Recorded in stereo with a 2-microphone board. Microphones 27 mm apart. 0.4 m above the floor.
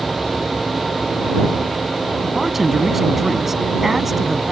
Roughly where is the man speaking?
Centre.